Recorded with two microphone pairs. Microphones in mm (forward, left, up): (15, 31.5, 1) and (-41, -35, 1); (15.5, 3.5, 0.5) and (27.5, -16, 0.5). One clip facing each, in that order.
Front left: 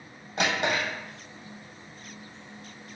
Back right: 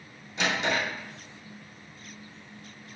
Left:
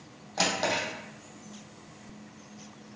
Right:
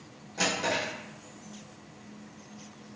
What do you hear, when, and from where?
0.4 s a drawer: 80° left, 1.7 m